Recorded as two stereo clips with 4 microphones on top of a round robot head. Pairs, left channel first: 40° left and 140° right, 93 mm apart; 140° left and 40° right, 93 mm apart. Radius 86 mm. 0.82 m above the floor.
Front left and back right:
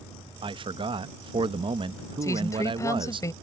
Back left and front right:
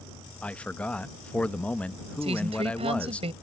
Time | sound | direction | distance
0.4 | a man speaking | 145° right | ?
2.2 | a woman speaking | 20° right | ?